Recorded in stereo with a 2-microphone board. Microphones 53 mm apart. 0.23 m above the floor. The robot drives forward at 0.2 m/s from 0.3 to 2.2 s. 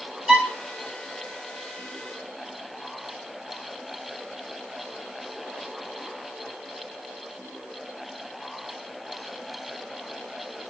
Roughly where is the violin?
Centre.